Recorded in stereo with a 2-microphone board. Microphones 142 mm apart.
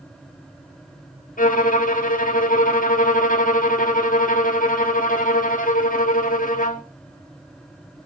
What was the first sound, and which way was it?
A violin, 70° left (ahead or behind).